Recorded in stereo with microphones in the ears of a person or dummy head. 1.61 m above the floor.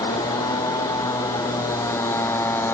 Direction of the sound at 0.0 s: 20° left (ahead or behind).